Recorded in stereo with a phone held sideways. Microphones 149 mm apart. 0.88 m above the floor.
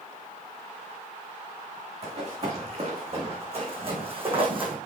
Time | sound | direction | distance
2.0 | running footsteps | 45° right (ahead or behind) | 4.5 m